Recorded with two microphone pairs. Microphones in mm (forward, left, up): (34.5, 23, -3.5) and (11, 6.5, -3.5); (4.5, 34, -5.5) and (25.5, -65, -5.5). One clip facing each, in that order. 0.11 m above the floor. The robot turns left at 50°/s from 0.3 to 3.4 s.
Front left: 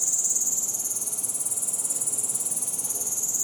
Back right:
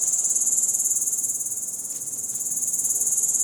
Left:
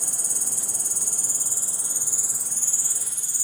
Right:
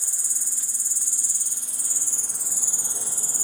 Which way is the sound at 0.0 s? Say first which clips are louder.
Back right 1 dB, left 7 dB; 115° left.